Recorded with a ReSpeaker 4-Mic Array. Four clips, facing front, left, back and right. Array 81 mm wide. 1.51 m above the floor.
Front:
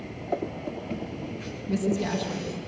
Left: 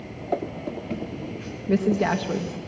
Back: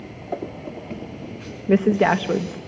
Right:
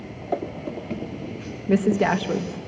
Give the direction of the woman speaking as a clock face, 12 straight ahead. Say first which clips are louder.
Right 2 dB, back 10 dB; 6 o'clock.